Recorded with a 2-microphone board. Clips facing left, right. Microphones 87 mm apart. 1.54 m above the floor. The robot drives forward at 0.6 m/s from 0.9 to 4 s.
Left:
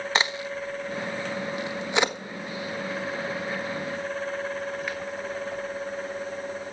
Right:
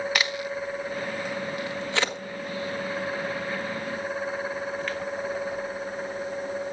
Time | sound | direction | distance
0.1 | a crack | 25° left (ahead or behind) | 1.0 m